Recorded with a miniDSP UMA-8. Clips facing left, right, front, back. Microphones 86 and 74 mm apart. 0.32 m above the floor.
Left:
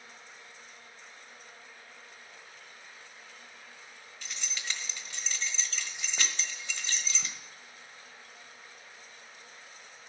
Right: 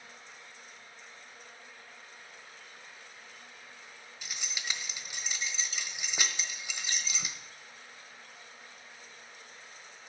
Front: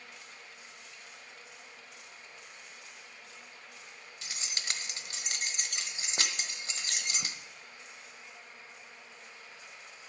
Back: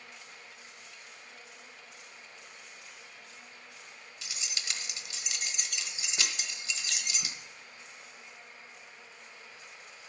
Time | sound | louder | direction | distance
4.2 | keys jangling | even, front 2 dB | 15° right | 1.1 m